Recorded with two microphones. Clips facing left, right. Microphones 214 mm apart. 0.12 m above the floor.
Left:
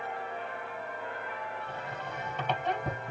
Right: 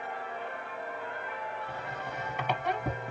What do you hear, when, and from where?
1.7 s a squeak: 10° right (ahead or behind), 1.7 m